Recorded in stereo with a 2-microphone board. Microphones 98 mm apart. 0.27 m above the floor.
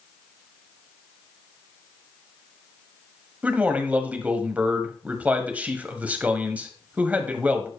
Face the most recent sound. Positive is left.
turn(degrees=-15)  # may be behind; listen again after turning